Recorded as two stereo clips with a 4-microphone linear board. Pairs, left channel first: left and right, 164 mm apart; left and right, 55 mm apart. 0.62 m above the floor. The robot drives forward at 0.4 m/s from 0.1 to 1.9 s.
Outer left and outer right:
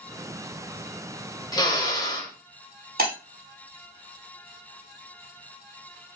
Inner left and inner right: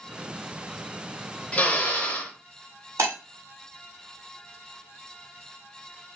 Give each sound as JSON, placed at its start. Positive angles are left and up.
{"t": 1.5, "sound": "a drill", "side_deg": 25, "distance_m": 0.7}
{"t": 3.0, "sound": "breaking glass", "side_deg": -75, "distance_m": 1.3}